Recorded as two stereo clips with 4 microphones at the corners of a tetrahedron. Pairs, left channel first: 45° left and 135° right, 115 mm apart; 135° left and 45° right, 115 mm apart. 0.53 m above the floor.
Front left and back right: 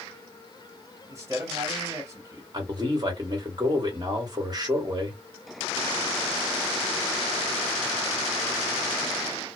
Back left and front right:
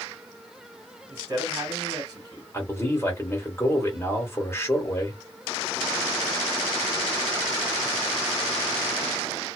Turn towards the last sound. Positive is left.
turn(degrees=-165)